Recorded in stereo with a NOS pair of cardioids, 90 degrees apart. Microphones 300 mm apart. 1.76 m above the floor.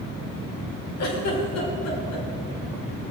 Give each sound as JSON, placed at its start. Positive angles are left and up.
{"t": 1.0, "sound": "a giggle", "azimuth_deg": 60, "distance_m": 5.0}